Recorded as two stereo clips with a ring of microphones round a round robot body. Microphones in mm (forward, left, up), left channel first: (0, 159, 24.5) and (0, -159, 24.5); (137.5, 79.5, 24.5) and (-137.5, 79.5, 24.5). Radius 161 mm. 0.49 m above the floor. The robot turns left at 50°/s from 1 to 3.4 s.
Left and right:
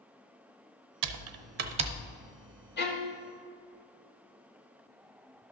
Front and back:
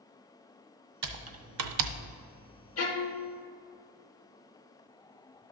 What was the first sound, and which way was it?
Typing on a keyboard, 125° right.